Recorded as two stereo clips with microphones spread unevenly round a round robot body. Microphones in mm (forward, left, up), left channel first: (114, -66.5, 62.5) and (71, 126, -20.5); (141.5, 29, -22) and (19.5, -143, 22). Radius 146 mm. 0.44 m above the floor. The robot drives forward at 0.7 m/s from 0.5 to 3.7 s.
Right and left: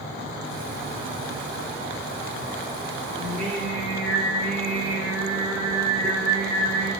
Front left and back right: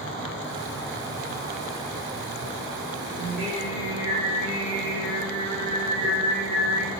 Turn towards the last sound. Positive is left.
turn(degrees=165)